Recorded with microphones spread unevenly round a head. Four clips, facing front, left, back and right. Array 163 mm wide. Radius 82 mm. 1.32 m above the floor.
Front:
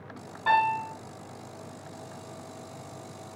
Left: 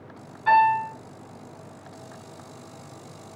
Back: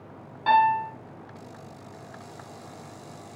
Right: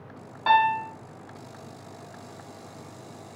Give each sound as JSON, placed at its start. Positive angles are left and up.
{"t": 0.5, "sound": "a piano", "azimuth_deg": -85, "distance_m": 1.2}